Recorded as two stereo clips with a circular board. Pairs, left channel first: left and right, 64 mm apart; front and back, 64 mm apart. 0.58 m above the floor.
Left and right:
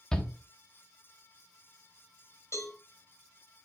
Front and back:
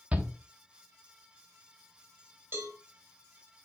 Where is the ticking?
No ticking in this recording.